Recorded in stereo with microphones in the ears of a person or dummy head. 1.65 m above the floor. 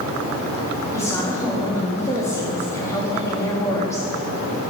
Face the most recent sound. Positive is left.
turn(degrees=15)  # may be behind; listen again after turning